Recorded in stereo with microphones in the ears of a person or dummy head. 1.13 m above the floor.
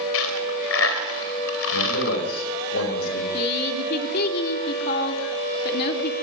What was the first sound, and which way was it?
A dropped coin, 80° left.